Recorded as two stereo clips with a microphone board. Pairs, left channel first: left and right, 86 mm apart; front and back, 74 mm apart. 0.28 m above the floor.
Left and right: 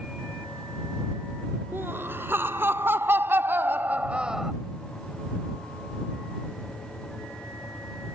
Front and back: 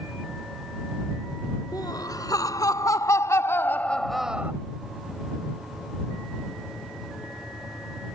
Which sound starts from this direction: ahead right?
Laughter, at 1.7 s.